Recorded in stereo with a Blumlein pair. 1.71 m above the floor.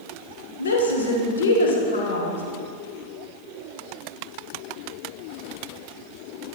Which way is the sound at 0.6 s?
65° left.